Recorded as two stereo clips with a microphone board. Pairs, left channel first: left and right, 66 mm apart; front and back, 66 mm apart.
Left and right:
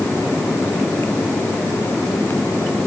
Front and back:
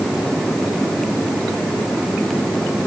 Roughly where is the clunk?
I don't hear a clunk.